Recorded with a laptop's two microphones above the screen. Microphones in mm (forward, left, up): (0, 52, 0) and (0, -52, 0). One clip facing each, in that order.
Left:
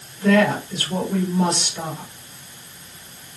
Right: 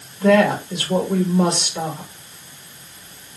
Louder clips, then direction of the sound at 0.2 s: Right 2 dB; 65° right (ahead or behind).